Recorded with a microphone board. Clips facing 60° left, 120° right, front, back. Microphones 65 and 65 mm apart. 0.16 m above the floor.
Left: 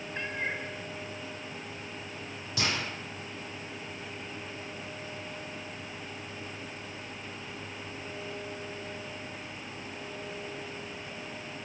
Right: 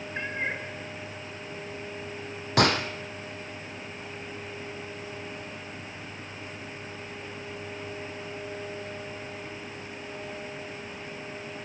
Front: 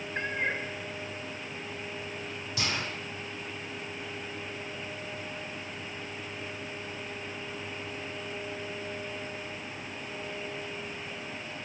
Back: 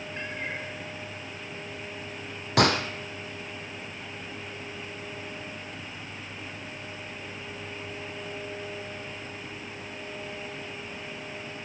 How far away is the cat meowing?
About 4.5 m.